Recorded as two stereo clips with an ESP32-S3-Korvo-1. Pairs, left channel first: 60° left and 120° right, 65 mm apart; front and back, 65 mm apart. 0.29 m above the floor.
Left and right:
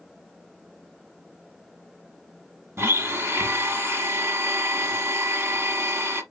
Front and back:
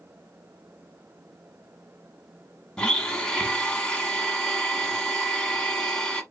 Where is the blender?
75° right, 1.1 m.